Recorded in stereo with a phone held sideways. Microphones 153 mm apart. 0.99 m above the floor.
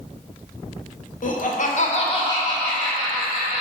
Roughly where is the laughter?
Left.